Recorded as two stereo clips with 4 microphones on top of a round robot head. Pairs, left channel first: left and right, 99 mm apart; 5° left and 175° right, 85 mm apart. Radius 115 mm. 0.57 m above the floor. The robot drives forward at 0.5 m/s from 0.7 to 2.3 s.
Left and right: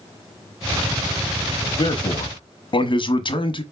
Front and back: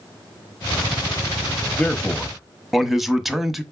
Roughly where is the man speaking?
Left.